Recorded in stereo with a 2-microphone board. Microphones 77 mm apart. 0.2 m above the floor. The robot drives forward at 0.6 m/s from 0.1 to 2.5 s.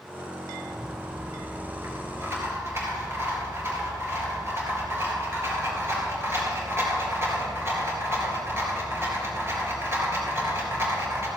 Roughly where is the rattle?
Right.